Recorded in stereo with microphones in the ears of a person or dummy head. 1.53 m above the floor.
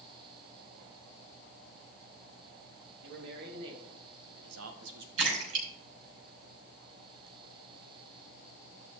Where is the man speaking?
65° right (ahead or behind), 3.5 m; by 5.1 s 60° right (ahead or behind), 1.4 m.